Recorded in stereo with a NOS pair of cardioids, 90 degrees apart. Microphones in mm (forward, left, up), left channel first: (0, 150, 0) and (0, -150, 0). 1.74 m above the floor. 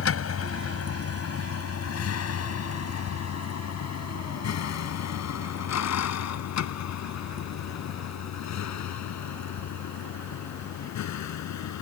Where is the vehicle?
55° left; by 11.8 s 75° left.